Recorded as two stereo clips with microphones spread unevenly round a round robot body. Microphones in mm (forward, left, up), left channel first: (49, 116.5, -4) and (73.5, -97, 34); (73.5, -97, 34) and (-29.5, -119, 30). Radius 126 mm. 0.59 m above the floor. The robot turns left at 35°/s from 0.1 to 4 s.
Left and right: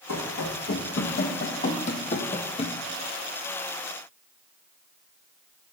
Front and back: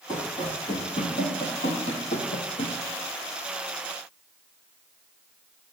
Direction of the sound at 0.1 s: 85° left.